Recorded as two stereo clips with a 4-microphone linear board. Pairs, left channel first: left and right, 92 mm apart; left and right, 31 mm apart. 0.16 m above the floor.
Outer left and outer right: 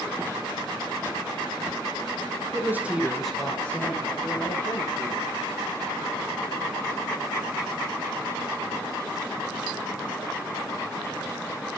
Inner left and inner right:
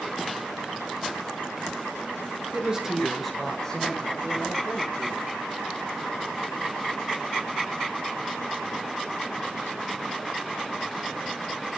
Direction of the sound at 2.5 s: 25° right (ahead or behind).